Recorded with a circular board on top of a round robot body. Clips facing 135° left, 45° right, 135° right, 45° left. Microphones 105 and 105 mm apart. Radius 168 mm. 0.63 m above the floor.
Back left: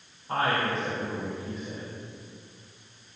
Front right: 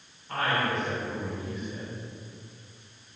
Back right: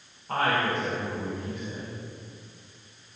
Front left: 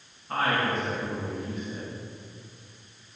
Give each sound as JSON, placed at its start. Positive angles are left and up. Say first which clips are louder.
{"t": 0.3, "sound": "a woman speaking", "louder": "back left 1 dB, back right 1 dB", "azimuth_deg": -165, "distance_m": 4.5}